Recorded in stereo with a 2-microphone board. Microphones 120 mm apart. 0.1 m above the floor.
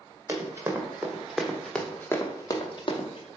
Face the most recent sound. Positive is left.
turn(degrees=55)  # may be behind; listen again after turning